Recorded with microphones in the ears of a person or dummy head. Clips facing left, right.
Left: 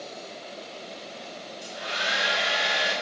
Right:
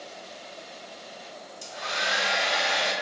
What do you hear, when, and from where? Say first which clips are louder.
1.6 s a hair dryer: right 1 dB; 70° right (ahead or behind), 2.5 m